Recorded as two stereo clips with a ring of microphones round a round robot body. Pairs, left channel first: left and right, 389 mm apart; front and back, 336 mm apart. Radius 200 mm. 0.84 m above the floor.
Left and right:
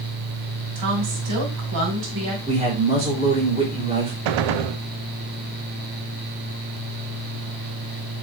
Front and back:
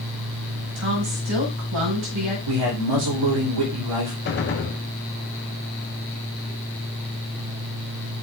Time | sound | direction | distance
0.8 | a woman speaking | 130° right | 4 m
2.5 | a man speaking | 165° right | 3 m
4.2 | a gunshot | 65° right | 0.6 m